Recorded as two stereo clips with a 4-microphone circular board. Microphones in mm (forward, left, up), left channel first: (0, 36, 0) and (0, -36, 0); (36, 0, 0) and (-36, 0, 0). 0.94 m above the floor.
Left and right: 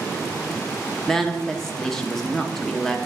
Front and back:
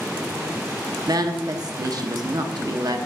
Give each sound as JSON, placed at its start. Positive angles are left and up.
{"t": 1.1, "sound": "a woman speaking", "azimuth_deg": 170, "distance_m": 0.7}